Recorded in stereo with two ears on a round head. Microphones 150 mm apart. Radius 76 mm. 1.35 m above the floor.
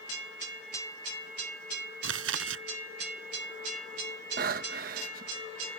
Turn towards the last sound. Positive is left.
turn(degrees=-55)  # may be behind; listen again after turning